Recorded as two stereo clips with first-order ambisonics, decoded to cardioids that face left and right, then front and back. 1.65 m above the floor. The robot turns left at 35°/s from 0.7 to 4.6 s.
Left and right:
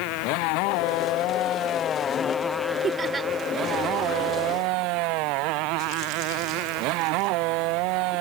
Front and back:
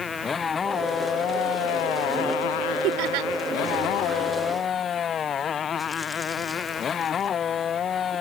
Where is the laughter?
155° right; by 3.3 s 170° right.